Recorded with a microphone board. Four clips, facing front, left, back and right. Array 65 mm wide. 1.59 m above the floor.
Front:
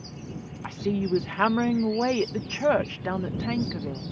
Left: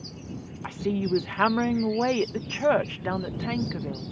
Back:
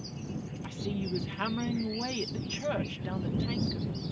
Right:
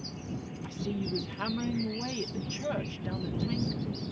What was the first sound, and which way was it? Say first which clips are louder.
A woman speaking: left 8 dB, front 9 dB; 45° left.